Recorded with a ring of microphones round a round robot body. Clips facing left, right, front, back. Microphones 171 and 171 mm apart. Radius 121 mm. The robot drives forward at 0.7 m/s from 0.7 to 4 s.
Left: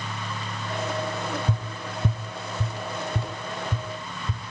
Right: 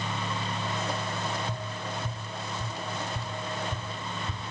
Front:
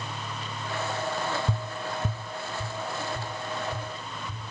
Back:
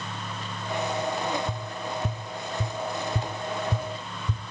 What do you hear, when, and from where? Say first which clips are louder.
1.5 s tapping: left 3 dB, even; 60° left, 1.0 m; by 4.4 s 150° left, 1.6 m